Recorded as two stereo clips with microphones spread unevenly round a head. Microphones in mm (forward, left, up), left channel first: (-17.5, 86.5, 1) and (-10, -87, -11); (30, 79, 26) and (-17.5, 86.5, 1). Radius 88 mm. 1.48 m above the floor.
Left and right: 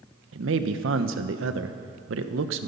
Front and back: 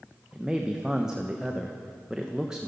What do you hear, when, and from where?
0.3 s a man speaking: 100° right, 1.1 m